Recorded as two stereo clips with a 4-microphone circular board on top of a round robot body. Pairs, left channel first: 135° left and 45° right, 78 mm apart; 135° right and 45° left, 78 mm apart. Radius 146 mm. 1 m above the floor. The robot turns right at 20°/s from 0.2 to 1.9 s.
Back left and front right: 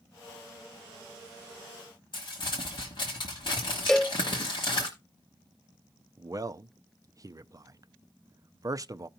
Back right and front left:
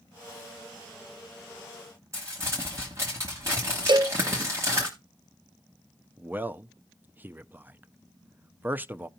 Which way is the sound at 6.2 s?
15° right.